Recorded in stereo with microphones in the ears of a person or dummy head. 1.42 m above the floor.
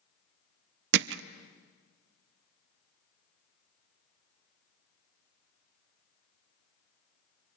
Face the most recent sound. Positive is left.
turn(degrees=-60)  # may be behind; listen again after turning